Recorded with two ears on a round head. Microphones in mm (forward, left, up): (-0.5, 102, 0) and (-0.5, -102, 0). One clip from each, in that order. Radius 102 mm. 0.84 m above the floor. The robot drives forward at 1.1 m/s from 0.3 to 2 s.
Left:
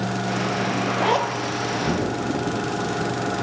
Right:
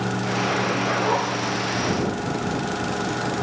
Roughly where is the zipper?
Left.